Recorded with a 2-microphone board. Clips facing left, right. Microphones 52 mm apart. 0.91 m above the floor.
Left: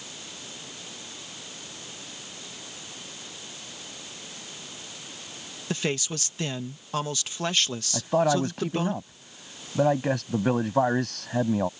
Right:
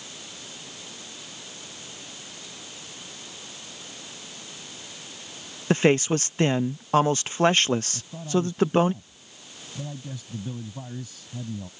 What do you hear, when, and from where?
5.7 s a man speaking: 40° right (ahead or behind)
7.9 s a man speaking: 85° left